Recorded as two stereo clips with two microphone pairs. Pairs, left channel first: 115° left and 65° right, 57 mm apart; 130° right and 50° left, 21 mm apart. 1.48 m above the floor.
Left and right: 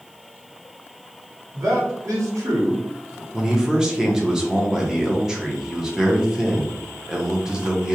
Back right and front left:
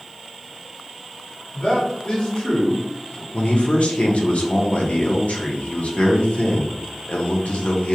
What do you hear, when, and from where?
1.5 s a man speaking: 85° right, 1.1 m
3.3 s a man speaking: 140° right, 0.6 m